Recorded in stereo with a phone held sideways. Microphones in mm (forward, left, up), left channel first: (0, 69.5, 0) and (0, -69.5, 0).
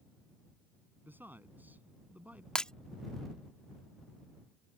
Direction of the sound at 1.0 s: 15° right (ahead or behind).